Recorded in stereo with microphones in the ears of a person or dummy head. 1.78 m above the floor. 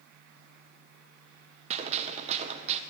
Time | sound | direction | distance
1.7 | a gunshot | 35° right (ahead or behind) | 0.8 m